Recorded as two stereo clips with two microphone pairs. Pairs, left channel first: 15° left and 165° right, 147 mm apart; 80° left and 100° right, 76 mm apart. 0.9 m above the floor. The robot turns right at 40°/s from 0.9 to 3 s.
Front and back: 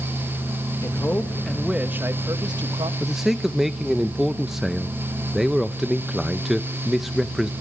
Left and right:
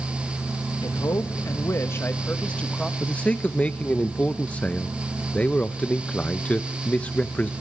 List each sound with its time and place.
0.8 s a man speaking: 80° left, 1.1 m; by 2.9 s 160° left, 1.1 m
3.0 s a man speaking: 110° left, 0.6 m